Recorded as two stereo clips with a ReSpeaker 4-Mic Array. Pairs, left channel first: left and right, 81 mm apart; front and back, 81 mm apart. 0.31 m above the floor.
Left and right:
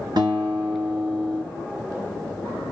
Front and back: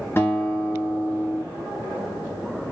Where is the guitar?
60° right, 1.8 m.